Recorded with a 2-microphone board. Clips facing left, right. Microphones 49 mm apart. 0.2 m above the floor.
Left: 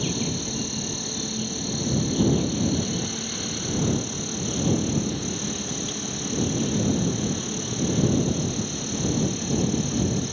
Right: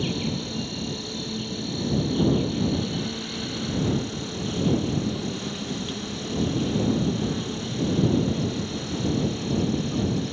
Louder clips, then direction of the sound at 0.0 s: Even; 5° right (ahead or behind).